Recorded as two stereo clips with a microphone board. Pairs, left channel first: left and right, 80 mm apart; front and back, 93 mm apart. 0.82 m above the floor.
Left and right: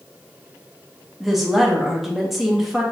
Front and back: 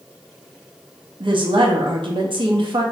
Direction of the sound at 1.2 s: 175° right.